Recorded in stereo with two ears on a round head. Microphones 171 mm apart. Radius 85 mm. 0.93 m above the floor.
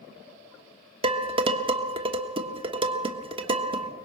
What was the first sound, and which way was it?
Dishes clattering, 25° right (ahead or behind).